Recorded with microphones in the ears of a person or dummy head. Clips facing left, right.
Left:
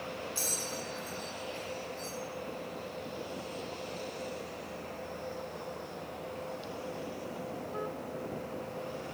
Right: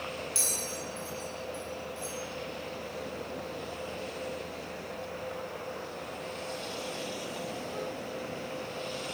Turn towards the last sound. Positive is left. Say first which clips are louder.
# right 1 dB
turn(degrees=-15)  # may be behind; listen again after turning